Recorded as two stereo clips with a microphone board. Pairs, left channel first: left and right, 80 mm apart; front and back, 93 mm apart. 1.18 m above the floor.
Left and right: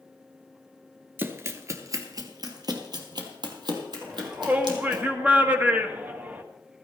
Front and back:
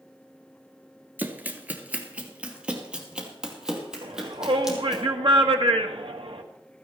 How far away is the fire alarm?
I don't hear a fire alarm.